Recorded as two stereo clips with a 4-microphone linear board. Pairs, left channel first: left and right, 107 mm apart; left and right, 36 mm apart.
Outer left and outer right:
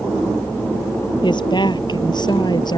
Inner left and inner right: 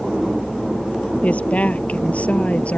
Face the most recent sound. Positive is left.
turn(degrees=40)  # may be behind; listen again after turning